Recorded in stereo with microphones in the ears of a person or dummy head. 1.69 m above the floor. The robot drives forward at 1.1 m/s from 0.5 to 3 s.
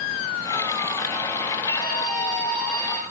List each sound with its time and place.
1.7 s a scream: 25° left (ahead or behind), 2.5 m; by 3.0 s 15° left (ahead or behind), 4 m